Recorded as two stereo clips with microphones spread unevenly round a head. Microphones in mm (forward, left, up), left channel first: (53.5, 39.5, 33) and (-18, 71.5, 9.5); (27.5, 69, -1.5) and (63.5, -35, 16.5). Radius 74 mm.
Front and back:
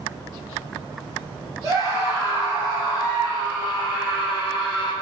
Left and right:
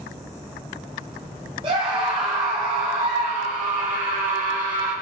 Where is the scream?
135° right, 4 m; by 4.9 s 115° right, 5 m.